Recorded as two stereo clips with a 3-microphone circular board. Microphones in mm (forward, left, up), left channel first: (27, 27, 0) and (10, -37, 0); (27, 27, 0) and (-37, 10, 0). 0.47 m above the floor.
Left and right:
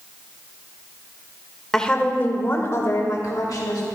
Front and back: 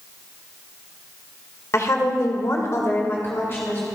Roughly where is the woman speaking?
Ahead.